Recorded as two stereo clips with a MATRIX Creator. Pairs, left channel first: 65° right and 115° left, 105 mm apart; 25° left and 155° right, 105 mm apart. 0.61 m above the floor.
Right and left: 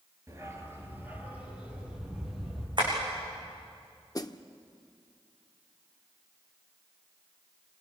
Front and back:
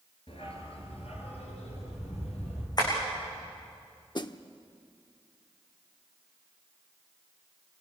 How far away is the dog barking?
About 3.5 m.